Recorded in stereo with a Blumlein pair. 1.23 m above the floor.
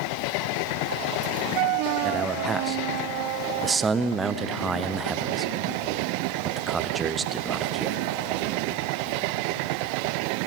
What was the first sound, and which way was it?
A man speaking, 15° right.